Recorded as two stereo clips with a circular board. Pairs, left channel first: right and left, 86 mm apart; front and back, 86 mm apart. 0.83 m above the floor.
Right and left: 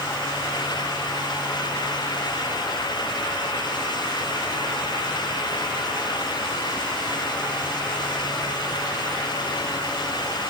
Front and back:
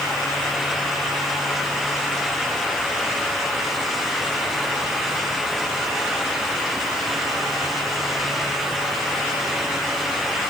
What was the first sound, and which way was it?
Only background noise.